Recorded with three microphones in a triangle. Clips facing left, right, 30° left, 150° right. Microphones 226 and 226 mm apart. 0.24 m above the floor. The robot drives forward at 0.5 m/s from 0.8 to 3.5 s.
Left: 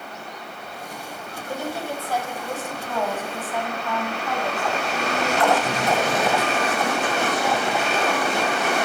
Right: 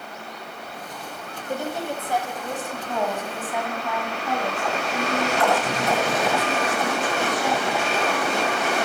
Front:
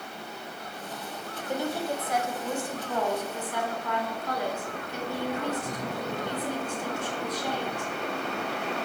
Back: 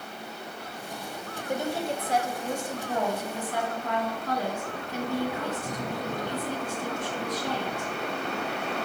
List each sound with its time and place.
1.5 s a woman speaking: 115° right, 1.0 m; by 7.9 s 165° right, 1.5 m